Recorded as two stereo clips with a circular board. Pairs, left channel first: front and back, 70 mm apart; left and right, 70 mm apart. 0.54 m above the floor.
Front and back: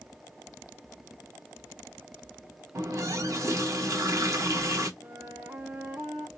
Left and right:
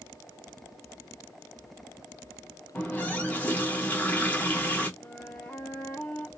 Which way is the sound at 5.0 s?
140° left.